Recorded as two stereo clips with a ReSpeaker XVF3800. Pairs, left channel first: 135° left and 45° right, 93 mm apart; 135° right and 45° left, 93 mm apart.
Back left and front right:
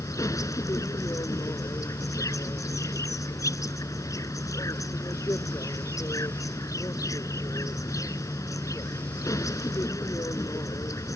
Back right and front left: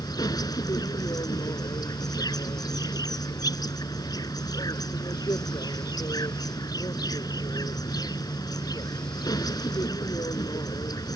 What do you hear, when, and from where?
0.0 s an insect: 175° right